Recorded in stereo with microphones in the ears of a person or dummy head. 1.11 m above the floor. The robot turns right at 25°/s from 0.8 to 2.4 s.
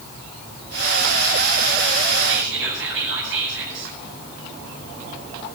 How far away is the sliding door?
No sliding door in this recording.